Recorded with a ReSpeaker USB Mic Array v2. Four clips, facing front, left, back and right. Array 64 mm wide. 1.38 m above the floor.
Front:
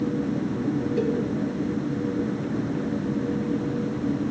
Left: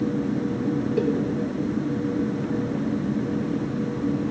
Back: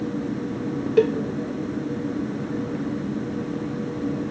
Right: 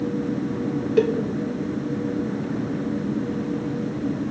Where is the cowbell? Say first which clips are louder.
Right 6 dB, back 9 dB; 145° right, 0.6 m.